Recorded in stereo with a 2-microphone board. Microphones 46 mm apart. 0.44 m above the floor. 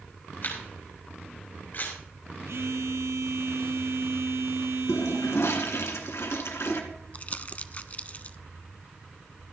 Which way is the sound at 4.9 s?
85° left.